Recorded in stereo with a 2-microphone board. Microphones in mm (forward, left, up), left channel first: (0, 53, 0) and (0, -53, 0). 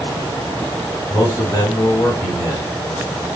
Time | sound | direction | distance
1.1 | a man speaking | 30° left (ahead or behind) | 1.7 m